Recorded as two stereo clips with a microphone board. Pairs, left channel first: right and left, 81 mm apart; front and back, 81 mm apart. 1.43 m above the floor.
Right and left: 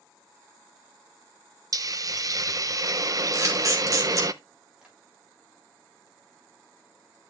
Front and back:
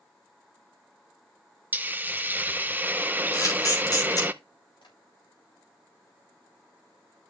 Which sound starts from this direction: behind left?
A hiss, at 1.7 s.